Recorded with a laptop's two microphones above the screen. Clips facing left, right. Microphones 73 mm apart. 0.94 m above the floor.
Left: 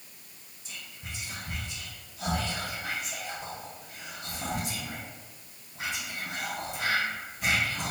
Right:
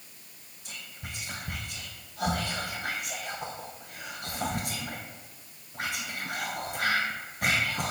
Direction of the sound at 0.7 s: 55° right (ahead or behind).